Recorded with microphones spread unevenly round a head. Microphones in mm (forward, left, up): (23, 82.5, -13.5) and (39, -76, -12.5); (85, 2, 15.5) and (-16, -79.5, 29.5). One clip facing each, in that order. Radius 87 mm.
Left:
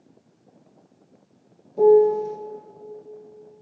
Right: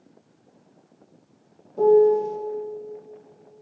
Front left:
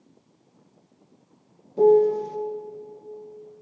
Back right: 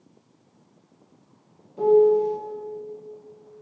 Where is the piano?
15° left, 0.8 m.